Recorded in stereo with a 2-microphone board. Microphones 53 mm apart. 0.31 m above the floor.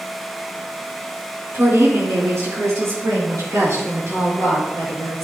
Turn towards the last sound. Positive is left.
turn(degrees=-75)  # may be behind; listen again after turning